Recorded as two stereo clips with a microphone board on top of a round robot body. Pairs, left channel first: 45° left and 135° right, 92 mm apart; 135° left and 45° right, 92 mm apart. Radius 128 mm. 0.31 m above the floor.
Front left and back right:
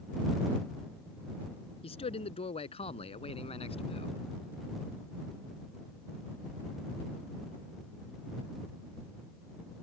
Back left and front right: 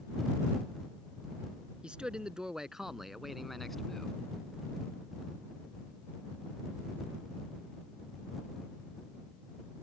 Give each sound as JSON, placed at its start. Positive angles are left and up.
{"t": 1.8, "sound": "a man speaking", "azimuth_deg": 35}